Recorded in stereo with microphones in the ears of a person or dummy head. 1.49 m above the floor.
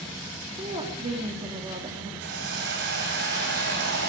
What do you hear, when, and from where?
0.6 s a woman speaking: 25° right (ahead or behind), 3 m
2.2 s a hiss: 60° right (ahead or behind), 7 m